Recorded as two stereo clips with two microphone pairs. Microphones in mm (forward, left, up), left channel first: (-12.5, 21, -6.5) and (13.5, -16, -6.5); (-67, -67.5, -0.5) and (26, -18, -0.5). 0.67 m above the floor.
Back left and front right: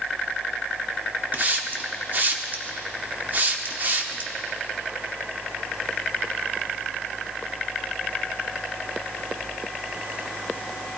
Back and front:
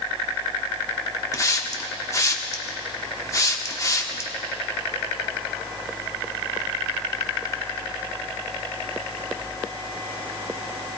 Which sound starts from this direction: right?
A hiss, at 1.3 s.